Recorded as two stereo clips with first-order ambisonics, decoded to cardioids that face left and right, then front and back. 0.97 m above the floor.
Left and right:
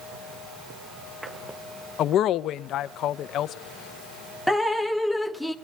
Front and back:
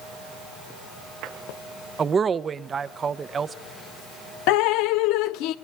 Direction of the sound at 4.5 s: 5° left.